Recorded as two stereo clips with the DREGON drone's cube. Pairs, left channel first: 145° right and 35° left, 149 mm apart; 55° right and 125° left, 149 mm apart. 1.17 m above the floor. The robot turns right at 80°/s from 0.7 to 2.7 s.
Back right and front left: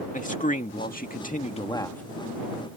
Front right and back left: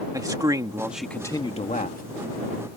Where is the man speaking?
170° right; by 2.0 s 65° right.